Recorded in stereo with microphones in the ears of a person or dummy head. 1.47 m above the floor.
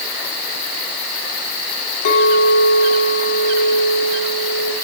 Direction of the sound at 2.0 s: 55° left (ahead or behind).